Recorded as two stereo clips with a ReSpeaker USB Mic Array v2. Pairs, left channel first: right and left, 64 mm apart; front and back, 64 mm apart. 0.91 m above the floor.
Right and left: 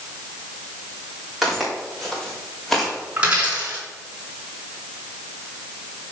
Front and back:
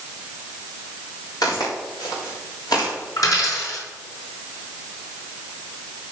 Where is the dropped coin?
20° left, 3.5 m.